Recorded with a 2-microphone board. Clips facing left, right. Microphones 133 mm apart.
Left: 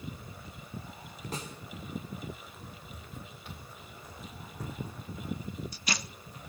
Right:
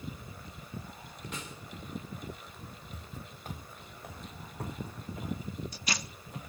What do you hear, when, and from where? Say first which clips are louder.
1.3 s a snare drum: left 4 dB; 40° left (ahead or behind), 2.5 m
2.9 s footsteps: even; 30° right (ahead or behind), 1.6 m; by 6.4 s 75° right (ahead or behind), 4.5 m